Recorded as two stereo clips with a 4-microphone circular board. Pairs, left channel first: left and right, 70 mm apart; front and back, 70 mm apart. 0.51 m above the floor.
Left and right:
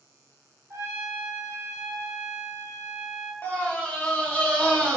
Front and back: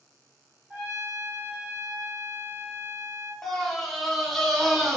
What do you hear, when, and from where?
0.7 s a trumpet: 115° right, 1.5 m
3.4 s a scream: 80° left, 0.7 m